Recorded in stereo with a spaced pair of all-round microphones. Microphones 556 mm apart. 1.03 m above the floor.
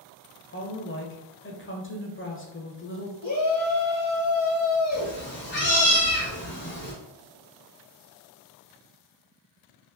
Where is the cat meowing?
20° left (ahead or behind), 1.5 m.